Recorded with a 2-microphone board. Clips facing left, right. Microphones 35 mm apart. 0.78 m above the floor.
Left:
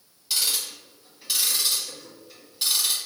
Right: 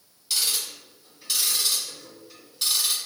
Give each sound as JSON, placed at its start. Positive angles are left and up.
{"t": 0.3, "sound": "ticking", "side_deg": 10, "distance_m": 1.8}